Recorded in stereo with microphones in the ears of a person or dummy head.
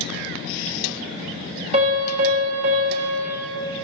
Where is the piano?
30° right (ahead or behind), 1.4 m.